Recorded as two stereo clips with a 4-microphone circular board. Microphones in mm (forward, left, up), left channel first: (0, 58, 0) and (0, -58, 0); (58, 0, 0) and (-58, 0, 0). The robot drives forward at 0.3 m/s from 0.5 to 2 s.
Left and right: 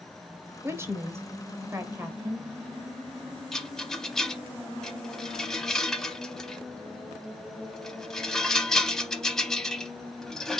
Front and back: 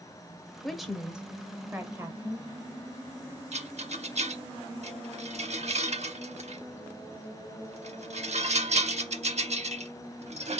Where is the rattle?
175° left, 0.6 m.